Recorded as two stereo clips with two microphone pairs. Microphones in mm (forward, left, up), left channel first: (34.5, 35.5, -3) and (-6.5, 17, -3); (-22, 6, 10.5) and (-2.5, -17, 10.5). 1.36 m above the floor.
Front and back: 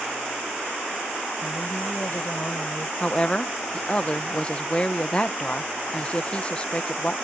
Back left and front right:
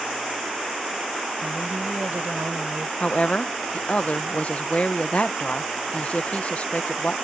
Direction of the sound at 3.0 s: 90° left.